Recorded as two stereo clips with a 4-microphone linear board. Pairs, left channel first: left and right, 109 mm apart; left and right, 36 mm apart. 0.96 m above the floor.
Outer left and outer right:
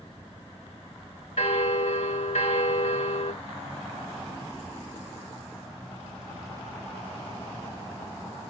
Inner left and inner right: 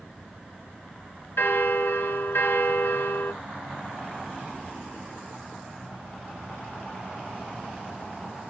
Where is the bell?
65° left (ahead or behind), 1.2 m.